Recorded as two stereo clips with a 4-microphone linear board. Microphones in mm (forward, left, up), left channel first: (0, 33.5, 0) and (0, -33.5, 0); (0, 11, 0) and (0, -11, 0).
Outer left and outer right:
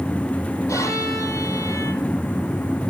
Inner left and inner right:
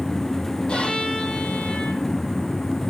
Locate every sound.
0.7 s a violin: 50° left (ahead or behind), 8 m